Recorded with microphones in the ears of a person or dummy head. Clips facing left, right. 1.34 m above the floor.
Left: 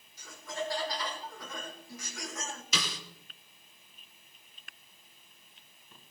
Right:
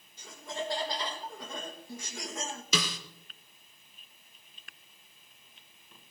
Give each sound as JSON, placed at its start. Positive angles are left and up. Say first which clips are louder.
{"t": 0.2, "sound": "laughter", "louder": "even", "side_deg": -25, "distance_m": 1.7}
{"t": 2.7, "sound": "a snare drum", "louder": "right 5 dB", "side_deg": -85, "distance_m": 2.0}